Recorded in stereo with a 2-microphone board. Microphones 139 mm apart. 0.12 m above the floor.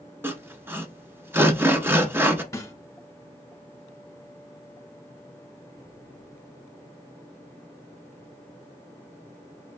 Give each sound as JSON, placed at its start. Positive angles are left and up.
{"t": 0.2, "sound": "sawing", "side_deg": -15, "distance_m": 0.7}
{"t": 2.5, "sound": "a snare drum", "side_deg": 25, "distance_m": 0.9}